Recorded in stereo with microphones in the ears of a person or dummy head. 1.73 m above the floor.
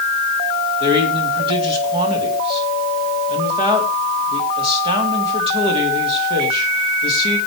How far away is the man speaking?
About 3.5 m.